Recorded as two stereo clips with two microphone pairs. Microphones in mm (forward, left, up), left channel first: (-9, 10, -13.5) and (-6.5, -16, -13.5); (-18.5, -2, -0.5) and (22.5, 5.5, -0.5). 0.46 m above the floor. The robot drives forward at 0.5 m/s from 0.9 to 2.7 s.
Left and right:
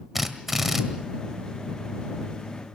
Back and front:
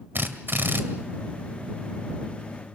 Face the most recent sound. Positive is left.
turn(degrees=-5)